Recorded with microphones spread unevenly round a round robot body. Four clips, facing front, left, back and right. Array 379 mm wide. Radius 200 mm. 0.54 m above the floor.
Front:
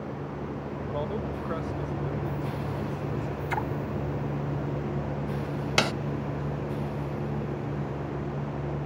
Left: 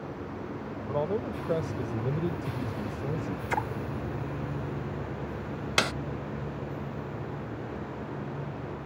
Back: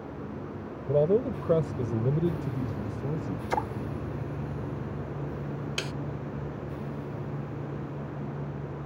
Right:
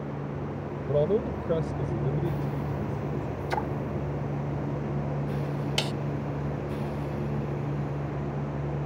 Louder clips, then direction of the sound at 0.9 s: Right 5 dB, back 10 dB; 150° right.